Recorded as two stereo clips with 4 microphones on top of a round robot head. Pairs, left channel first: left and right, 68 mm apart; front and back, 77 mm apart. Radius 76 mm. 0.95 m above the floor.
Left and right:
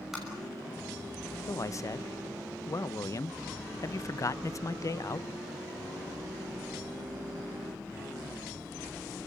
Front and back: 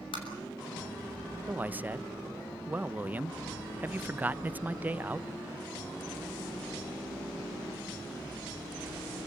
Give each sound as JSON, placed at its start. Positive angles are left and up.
{"t": 0.1, "sound": "tapping", "azimuth_deg": -5, "distance_m": 6.0}
{"t": 1.5, "sound": "a man speaking", "azimuth_deg": 115, "distance_m": 0.8}